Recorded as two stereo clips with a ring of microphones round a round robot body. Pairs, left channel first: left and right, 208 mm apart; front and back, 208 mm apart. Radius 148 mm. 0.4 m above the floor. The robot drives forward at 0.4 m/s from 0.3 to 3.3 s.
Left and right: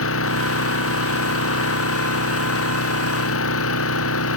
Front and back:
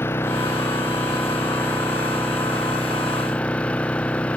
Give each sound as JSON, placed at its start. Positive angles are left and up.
{"t": 0.0, "sound": "an engine running", "azimuth_deg": 85}